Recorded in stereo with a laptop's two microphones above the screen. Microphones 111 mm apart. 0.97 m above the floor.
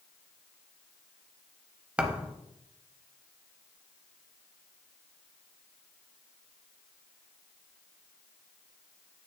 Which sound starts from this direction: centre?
A thud, at 2.0 s.